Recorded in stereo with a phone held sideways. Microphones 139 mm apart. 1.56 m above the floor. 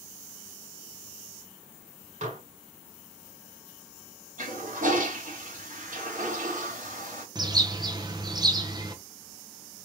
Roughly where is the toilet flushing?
Right.